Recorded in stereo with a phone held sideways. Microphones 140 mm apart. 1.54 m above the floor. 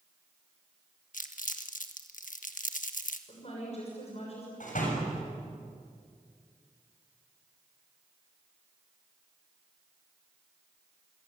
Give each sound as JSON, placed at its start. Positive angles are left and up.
{"t": 1.1, "sound": "crumpling", "side_deg": 70, "distance_m": 1.6}
{"t": 3.3, "sound": "a woman speaking", "side_deg": 50, "distance_m": 6.0}
{"t": 4.6, "sound": "a door slam", "side_deg": 70, "distance_m": 7.0}